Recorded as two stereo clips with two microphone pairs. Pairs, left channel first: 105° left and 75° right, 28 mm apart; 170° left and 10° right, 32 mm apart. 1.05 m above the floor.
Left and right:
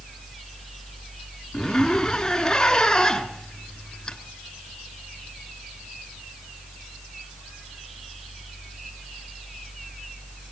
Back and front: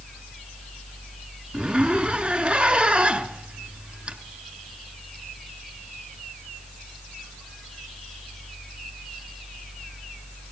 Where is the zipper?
40° left, 1.9 m.